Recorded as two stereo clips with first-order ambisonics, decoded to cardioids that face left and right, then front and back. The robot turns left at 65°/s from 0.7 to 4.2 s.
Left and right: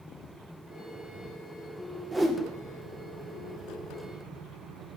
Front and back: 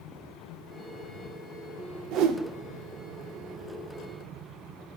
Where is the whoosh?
165° right, 0.7 m; by 2.4 s straight behind, 0.7 m.